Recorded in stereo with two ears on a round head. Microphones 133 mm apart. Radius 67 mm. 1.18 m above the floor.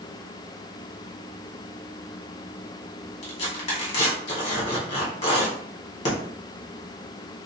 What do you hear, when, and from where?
3.2 s tearing paper: 45° left (ahead or behind), 2 m